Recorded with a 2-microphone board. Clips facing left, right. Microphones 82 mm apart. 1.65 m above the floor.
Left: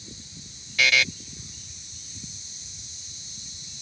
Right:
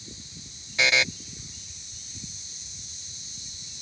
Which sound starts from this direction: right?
A buzzer, at 0.8 s.